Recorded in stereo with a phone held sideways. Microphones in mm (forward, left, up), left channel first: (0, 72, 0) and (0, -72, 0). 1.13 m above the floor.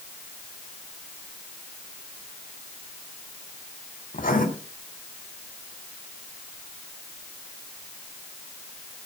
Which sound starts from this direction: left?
Writing, at 4.1 s.